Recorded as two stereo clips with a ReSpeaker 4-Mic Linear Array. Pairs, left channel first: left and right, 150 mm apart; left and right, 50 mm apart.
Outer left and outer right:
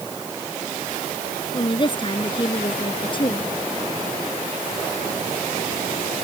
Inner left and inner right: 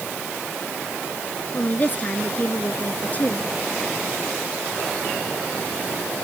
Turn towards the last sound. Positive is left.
turn(degrees=35)  # may be behind; listen again after turning